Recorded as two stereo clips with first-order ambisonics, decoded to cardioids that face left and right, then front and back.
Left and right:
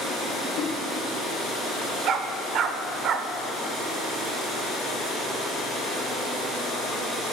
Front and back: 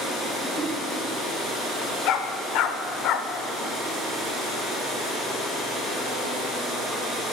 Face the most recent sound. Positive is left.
turn(degrees=-35)